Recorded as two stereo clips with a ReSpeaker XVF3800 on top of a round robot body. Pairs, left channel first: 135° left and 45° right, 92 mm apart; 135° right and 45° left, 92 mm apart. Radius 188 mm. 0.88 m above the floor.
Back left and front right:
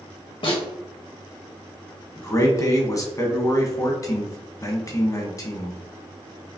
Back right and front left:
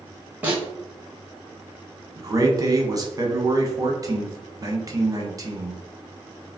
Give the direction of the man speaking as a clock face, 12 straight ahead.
9 o'clock.